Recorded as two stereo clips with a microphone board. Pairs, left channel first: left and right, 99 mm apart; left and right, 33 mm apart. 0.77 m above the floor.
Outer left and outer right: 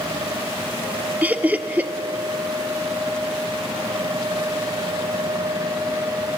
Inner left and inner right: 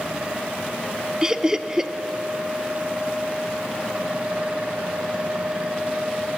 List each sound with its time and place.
1.2 s laughter: 15° right (ahead or behind), 1.3 m